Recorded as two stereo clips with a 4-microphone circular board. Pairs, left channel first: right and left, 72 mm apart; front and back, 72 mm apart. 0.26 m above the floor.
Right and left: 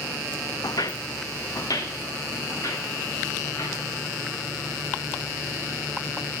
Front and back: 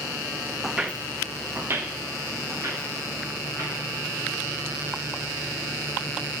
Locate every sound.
0.6 s footsteps: 90° right, 0.6 m; by 3.8 s 130° right, 4.5 m